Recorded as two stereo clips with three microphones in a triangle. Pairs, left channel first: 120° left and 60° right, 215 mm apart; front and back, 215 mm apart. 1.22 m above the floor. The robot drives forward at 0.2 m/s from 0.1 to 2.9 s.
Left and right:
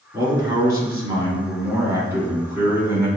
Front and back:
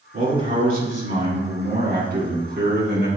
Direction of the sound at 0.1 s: 125° right.